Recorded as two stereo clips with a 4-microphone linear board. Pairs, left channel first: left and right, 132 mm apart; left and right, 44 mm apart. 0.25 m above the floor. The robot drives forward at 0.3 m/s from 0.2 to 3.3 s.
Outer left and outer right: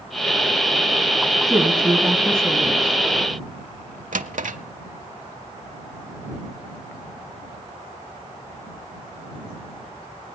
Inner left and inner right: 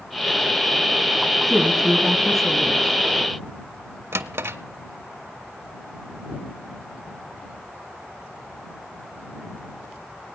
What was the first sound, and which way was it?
A woman speaking, 5° left (ahead or behind).